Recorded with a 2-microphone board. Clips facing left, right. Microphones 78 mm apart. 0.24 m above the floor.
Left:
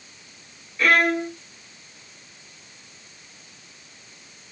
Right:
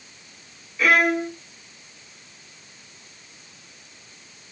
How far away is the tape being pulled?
I don't hear tape being pulled.